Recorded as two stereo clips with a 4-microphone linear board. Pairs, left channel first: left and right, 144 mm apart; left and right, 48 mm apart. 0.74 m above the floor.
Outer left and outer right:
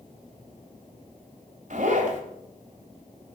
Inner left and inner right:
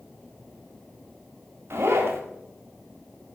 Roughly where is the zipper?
Right.